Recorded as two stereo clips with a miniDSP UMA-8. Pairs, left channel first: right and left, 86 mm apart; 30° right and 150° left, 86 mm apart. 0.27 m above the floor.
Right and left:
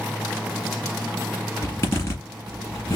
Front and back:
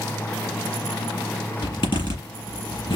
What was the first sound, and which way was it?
A zipper, 40° right.